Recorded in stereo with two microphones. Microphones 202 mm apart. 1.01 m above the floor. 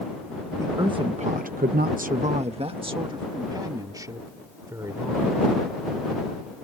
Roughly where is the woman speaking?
Centre.